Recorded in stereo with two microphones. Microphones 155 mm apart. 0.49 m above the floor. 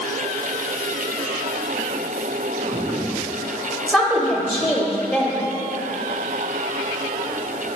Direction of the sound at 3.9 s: 5° right (ahead or behind).